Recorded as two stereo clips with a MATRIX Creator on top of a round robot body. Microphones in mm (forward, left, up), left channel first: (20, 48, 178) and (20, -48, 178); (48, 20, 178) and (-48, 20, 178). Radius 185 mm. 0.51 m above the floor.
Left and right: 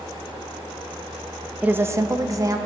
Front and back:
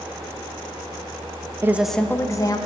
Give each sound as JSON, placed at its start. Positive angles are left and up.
{"t": 1.6, "sound": "a woman speaking", "azimuth_deg": -150, "distance_m": 0.7}